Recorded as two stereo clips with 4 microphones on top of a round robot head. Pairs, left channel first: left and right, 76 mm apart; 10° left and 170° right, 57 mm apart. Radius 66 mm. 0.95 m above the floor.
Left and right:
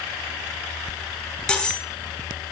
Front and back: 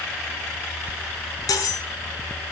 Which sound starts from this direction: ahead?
Cutlery clinking, at 1.5 s.